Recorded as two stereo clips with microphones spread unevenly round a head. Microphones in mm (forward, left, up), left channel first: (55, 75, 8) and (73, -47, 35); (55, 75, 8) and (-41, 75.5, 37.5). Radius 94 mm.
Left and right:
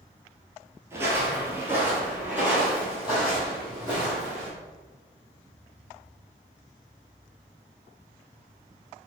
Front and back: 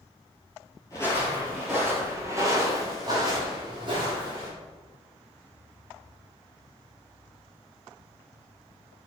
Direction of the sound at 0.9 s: 70° right.